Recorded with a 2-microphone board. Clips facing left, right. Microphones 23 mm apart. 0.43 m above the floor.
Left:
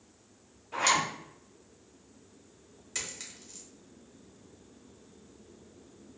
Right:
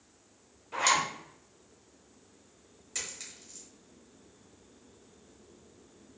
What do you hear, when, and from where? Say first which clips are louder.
0.7 s a zipper: even; 15° right (ahead or behind), 1.0 m
3.0 s a dropped coin: left 1 dB; 10° left (ahead or behind), 0.9 m